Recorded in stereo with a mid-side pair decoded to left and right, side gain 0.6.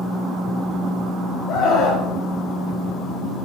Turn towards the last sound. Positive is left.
turn(degrees=60)